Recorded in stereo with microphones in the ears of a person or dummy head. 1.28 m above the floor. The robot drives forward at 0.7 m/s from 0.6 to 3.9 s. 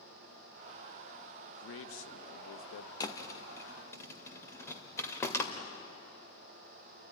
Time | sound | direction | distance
1.5 | a man speaking | 80° left | 1.3 m
3.0 | a thud | 20° left (ahead or behind) | 1.3 m